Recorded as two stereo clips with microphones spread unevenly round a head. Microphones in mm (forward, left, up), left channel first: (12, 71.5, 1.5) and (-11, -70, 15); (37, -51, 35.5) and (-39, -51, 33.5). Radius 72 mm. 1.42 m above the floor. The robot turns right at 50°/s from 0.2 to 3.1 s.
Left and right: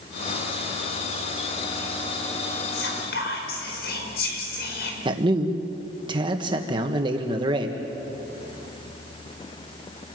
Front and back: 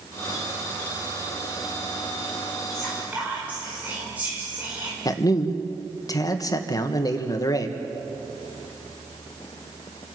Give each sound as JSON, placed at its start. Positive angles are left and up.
{"t": 2.7, "sound": "whispering", "azimuth_deg": 85, "distance_m": 5.0}
{"t": 5.0, "sound": "a man speaking", "azimuth_deg": -40, "distance_m": 1.9}